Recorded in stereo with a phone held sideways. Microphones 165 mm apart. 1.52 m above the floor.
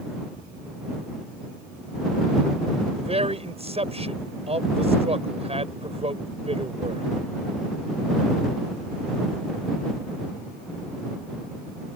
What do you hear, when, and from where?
3.0 s a man speaking: 40° right (ahead or behind)